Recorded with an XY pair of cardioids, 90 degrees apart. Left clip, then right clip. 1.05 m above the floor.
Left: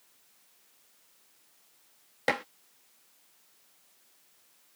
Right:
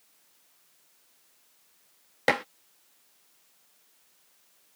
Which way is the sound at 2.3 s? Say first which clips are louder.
Right 4 dB; 35° right.